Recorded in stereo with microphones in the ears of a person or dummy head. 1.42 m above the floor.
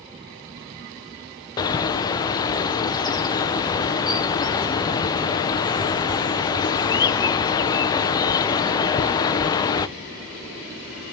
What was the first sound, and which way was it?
A bird, 25° left (ahead or behind).